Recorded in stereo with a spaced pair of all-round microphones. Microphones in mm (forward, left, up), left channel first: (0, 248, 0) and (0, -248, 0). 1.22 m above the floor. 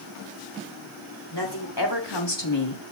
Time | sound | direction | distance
1.3 | a woman speaking | 45° left (ahead or behind) | 4 m